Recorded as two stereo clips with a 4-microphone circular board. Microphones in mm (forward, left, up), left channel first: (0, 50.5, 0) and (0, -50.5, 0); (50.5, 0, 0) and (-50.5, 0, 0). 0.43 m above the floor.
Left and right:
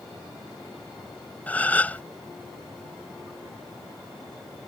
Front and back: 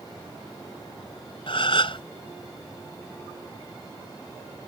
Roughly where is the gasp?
Ahead.